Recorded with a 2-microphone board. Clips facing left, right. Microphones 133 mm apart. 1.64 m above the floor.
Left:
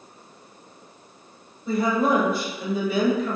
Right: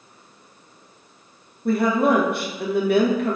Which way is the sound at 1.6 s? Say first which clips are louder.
Right 3 dB; 65° right (ahead or behind).